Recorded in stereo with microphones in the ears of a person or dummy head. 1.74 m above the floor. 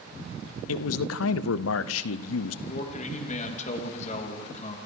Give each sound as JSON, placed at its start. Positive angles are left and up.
{"t": 0.7, "sound": "a man speaking", "side_deg": 80, "distance_m": 0.8}
{"t": 2.7, "sound": "a man speaking", "side_deg": 35, "distance_m": 3.0}